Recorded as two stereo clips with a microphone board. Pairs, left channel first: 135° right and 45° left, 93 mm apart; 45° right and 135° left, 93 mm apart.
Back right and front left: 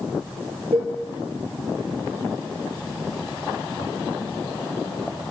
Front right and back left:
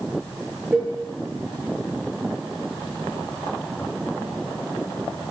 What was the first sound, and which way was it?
A cowbell, 60° left.